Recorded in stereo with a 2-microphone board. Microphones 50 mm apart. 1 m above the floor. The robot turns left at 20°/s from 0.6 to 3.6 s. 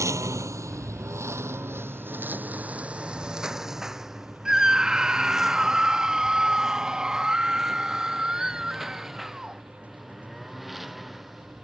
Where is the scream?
15° right (ahead or behind).